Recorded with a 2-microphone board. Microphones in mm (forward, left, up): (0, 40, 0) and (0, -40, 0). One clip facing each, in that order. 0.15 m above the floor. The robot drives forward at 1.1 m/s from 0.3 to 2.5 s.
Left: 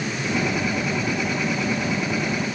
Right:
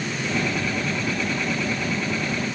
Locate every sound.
Only background noise.